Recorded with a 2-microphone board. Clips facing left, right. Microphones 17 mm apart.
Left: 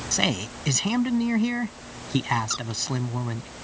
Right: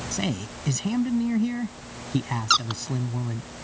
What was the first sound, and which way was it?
A man speaking, 35° left (ahead or behind).